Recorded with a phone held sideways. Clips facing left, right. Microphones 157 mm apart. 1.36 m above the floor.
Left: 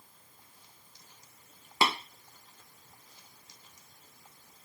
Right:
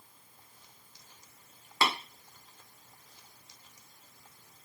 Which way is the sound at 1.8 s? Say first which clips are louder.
Left 1 dB; 20° left (ahead or behind).